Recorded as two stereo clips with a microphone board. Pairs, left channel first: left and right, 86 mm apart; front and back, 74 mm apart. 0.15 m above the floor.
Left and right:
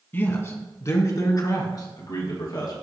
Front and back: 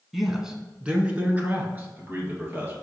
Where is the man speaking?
95° left, 1.1 m; by 2.7 s 125° left, 2.5 m.